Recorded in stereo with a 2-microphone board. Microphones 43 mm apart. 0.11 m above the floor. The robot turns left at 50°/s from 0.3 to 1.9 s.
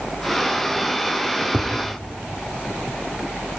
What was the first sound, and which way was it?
Tapping, 40° right (ahead or behind).